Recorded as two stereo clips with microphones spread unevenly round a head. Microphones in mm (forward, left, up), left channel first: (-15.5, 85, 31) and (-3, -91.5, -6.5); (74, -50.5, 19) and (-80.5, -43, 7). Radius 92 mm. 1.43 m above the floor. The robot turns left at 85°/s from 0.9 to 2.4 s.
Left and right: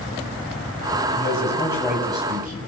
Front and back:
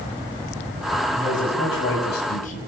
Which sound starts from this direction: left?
A man speaking, at 1.1 s.